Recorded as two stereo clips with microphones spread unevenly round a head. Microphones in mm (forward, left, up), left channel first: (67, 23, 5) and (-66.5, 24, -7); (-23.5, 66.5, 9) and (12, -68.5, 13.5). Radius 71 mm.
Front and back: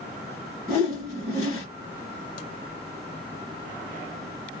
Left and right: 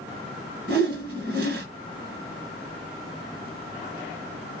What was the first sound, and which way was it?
A whoosh, 65° right.